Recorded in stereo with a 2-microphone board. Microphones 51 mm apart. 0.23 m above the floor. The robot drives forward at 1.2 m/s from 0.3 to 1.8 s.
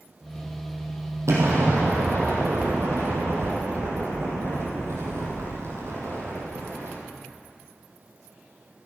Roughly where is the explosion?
Right.